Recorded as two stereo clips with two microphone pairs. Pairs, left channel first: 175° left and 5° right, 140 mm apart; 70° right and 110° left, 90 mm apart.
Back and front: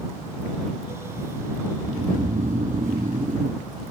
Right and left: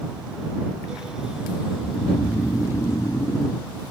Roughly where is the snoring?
Ahead.